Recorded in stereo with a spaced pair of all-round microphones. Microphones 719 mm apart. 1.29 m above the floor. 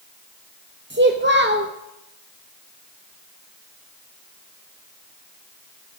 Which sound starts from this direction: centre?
A child speaking, at 0.9 s.